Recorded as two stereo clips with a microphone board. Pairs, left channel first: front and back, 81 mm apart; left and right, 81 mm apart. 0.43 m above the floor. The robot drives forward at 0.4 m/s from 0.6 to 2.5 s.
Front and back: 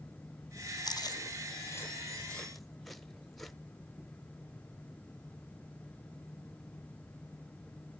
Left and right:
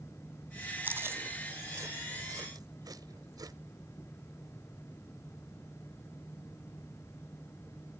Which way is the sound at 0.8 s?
30° right.